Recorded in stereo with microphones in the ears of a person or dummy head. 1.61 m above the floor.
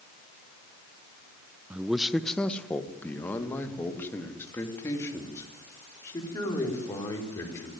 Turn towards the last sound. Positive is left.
turn(degrees=20)  # may be behind; listen again after turning